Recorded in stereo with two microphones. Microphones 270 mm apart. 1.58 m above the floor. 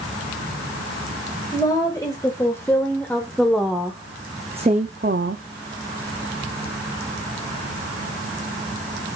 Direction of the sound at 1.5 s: 15° left (ahead or behind).